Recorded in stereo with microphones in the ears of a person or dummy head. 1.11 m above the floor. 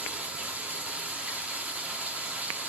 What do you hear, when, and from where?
0.0 s running water: 5° right (ahead or behind), 0.9 m